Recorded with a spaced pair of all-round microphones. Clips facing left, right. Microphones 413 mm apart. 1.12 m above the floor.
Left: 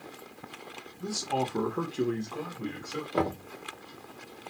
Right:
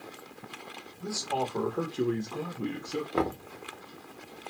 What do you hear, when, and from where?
1.0 s a man speaking: 50° left (ahead or behind), 0.9 m; by 3.4 s 60° right (ahead or behind), 1.2 m
3.1 s knocking: centre (ahead or behind), 0.6 m